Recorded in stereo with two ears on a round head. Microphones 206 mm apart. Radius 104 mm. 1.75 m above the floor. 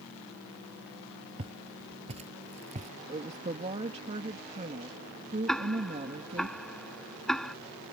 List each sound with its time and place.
1.4 s footsteps: 25° right (ahead or behind); by 2.9 s 30° right (ahead or behind)
3.1 s a woman speaking: 25° right (ahead or behind)
5.5 s ticking: centre (ahead or behind)